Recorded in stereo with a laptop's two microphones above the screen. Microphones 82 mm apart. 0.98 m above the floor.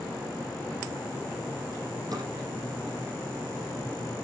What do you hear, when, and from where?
2.1 s a drawer: 50° right (ahead or behind), 8.5 m